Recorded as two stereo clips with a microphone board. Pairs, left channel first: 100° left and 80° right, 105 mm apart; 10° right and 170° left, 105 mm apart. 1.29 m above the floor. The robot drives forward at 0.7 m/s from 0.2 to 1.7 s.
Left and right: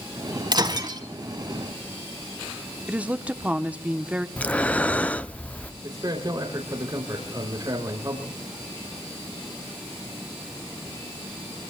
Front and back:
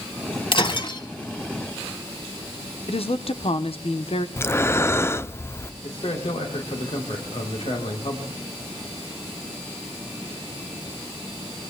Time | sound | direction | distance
0.5 | breaking glass | 35° right | 2.5 m
2.9 | a woman speaking | straight ahead | 0.9 m
4.4 | breathing | 35° left | 0.5 m
5.8 | a man speaking | 30° right | 3 m